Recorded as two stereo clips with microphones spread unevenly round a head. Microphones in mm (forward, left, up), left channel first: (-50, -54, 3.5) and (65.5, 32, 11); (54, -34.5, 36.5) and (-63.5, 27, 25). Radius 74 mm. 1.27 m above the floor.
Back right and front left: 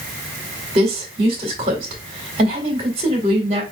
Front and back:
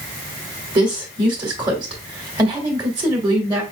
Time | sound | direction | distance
0.8 | a woman speaking | 95° left | 1.7 m